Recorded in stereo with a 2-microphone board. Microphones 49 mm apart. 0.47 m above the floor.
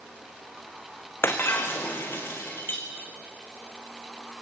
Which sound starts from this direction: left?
Breaking glass, at 1.2 s.